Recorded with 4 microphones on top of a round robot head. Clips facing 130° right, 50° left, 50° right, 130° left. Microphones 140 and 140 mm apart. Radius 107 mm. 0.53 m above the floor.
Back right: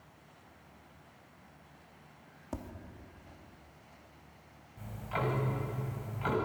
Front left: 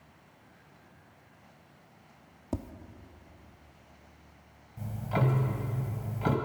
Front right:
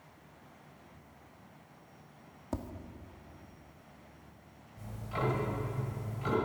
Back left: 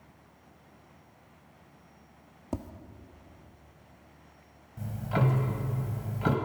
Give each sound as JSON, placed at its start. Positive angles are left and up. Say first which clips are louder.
{"t": 2.5, "sound": "tapping", "louder": "front left 6 dB, back left 2 dB", "azimuth_deg": 70, "distance_m": 1.3}
{"t": 4.8, "sound": "ticking", "louder": "front left 5 dB, back left 6 dB", "azimuth_deg": 100, "distance_m": 2.0}